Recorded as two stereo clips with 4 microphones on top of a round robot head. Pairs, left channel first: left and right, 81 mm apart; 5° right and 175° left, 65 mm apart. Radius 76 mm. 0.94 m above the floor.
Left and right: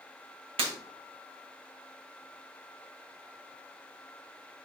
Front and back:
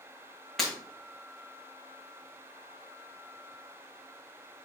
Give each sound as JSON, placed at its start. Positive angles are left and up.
{"t": 0.6, "sound": "breaking glass", "azimuth_deg": -90, "distance_m": 2.5}